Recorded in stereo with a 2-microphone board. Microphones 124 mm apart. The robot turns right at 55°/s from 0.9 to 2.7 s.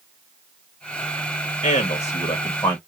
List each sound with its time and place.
1.6 s a man speaking: 90° left, 1.5 m; by 2.8 s 150° left, 1.5 m